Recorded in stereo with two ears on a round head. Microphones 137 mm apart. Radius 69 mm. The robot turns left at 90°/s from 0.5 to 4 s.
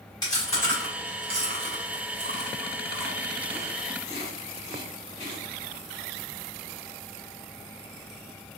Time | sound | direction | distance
0.2 | chewing | 30° left (ahead or behind) | 2.5 m